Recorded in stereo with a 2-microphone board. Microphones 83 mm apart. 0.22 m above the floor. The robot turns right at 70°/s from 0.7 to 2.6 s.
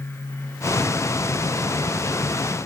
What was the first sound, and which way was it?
Only background noise.